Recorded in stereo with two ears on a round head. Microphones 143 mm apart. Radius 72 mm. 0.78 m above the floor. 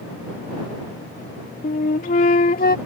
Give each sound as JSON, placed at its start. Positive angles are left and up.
{"t": 1.6, "sound": "a flute", "side_deg": 60}